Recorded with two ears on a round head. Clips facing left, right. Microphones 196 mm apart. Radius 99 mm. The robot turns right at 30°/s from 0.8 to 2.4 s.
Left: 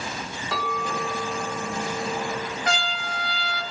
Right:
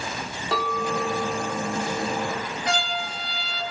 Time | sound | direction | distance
0.5 | a clink | 130° right | 1.0 m
2.6 | a trumpet | 50° left (ahead or behind) | 0.6 m